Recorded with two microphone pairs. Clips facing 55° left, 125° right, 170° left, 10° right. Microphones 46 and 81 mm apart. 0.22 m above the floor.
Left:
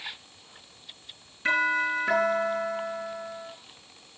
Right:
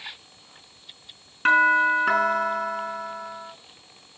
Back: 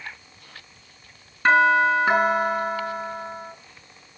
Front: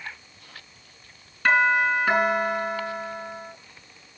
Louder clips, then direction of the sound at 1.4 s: Right 7 dB, back 3 dB; 135° right.